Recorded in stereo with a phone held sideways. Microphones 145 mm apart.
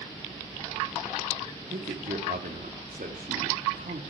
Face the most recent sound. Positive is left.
turn(degrees=-75)  # may be behind; listen again after turning